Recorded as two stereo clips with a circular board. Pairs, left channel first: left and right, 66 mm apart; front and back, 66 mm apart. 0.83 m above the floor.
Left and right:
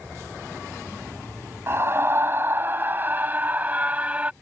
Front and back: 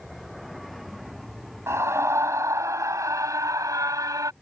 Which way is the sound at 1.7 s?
140° right.